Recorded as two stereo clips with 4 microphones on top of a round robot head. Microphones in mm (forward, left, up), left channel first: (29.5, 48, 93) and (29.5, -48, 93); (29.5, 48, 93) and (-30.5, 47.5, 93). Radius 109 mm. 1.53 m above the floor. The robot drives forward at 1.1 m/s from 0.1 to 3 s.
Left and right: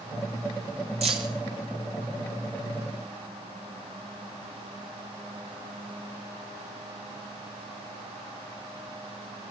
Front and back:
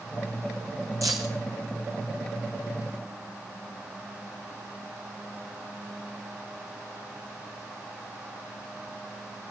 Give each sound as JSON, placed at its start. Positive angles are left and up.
{"t": 1.0, "sound": "keys jangling", "azimuth_deg": -115, "distance_m": 0.5}